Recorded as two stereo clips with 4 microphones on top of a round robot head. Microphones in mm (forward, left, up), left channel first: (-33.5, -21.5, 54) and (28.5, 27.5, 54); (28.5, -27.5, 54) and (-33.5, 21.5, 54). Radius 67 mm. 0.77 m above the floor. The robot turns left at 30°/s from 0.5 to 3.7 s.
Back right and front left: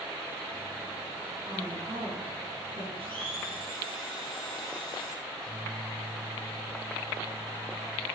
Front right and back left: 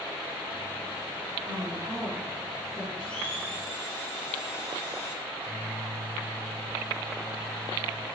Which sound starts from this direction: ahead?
A microwave, at 5.2 s.